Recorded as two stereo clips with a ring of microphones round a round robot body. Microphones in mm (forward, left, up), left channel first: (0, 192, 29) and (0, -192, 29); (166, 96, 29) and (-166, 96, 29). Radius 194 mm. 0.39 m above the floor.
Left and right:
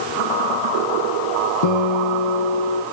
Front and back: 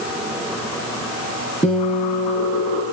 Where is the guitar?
70° left, 5 m.